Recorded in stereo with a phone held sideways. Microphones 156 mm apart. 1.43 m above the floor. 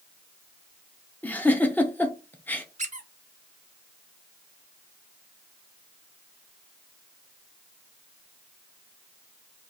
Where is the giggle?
10° left (ahead or behind), 0.6 m.